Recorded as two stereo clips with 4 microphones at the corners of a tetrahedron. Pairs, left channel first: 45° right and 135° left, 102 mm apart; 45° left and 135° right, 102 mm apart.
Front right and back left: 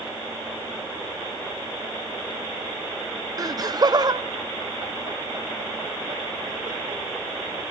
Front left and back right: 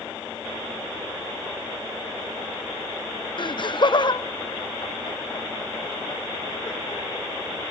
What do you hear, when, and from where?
3.4 s laughter: 80° left, 0.6 m; by 7.0 s 90° left, 2.5 m